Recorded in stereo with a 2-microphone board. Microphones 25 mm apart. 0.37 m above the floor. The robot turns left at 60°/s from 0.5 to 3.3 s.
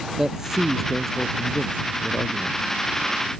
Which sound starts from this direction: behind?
A man speaking, at 0.2 s.